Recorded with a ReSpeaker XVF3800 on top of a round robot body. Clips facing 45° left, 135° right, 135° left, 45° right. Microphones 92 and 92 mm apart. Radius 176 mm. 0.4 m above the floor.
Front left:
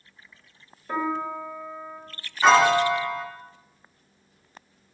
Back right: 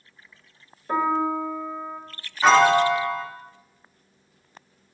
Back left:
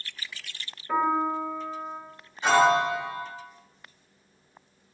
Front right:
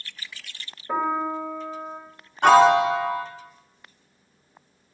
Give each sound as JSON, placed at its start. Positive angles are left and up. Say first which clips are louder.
{"t": 0.9, "sound": "a piano", "louder": "back right 5 dB, even", "azimuth_deg": -85, "distance_m": 1.4}
{"t": 2.4, "sound": "a piano", "louder": "back right 1 dB, front right 6 dB", "azimuth_deg": -45, "distance_m": 1.2}